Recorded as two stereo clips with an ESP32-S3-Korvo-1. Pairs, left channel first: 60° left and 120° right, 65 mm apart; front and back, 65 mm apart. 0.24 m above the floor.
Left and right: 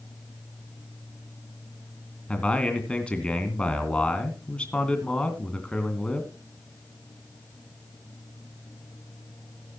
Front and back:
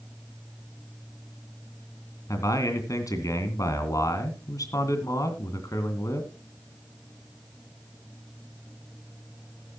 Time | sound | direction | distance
2.3 | a man speaking | 10° right | 2.5 m